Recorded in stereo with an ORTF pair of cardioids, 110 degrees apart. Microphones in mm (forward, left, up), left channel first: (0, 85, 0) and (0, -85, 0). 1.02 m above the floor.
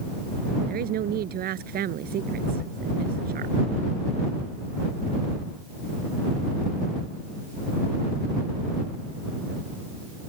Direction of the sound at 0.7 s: 60° right.